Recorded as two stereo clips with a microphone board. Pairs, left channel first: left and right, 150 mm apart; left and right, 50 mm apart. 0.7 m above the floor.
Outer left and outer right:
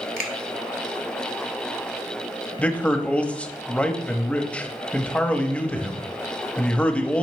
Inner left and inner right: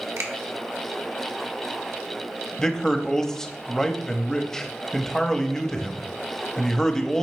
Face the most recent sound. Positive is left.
turn(degrees=10)  # may be behind; listen again after turning